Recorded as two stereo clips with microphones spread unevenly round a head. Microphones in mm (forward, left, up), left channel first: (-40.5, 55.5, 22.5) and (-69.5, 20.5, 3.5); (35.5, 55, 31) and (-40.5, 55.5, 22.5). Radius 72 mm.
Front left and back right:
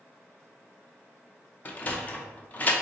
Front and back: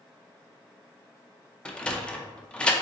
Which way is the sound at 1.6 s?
70° left.